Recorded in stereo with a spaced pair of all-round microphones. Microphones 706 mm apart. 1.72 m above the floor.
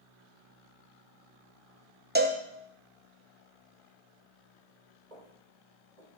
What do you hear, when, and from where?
2.1 s a cowbell: 15° right (ahead or behind), 1.0 m
5.1 s footsteps: 70° right (ahead or behind), 4.5 m; by 6.2 s 60° right (ahead or behind), 3.5 m